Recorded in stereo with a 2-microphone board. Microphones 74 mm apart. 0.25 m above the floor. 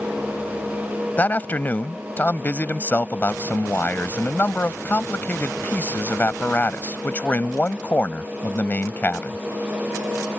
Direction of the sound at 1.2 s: 25° left (ahead or behind).